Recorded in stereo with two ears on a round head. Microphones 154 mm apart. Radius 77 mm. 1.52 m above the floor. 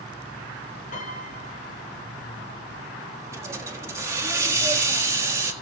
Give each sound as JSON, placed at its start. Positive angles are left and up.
{"t": 0.9, "sound": "a piano", "side_deg": 45, "distance_m": 4.0}
{"t": 3.3, "sound": "a hiss", "side_deg": -15, "distance_m": 1.5}